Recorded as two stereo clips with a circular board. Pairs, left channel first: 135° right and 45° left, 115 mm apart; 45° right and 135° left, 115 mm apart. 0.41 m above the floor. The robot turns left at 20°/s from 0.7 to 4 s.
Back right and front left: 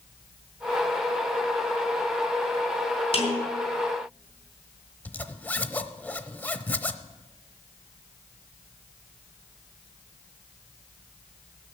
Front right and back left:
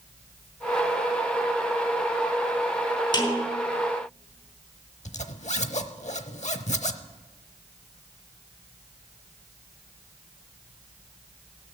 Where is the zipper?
60° right, 0.7 m.